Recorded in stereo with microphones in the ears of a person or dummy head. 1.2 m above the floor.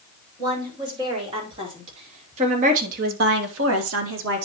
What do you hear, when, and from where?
0.4 s a woman speaking: 20° right (ahead or behind), 6 m; by 4.5 s 55° right (ahead or behind), 1.6 m